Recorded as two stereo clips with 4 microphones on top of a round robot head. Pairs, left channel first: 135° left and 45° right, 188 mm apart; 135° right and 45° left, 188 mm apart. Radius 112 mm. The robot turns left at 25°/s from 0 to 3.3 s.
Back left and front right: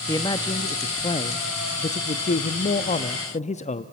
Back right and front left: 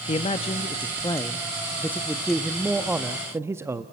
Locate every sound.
0.1 s a man speaking: 165° right, 0.6 m; by 3.8 s 115° left, 0.6 m